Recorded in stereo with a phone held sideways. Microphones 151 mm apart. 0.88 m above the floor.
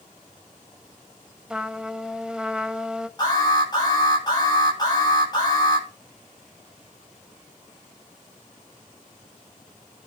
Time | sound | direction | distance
1.5 | a trumpet | 5° right (ahead or behind) | 0.7 m
3.2 | an alarm | 30° left (ahead or behind) | 8.5 m